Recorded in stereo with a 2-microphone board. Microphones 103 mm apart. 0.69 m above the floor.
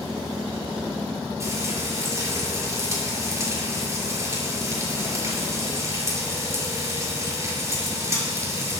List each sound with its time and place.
1.4 s frying: 30° right (ahead or behind), 6.5 m